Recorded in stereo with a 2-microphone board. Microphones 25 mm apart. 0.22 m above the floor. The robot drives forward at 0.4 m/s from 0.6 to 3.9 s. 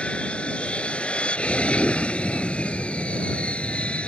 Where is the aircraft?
55° left (ahead or behind); by 4.1 s 60° left (ahead or behind).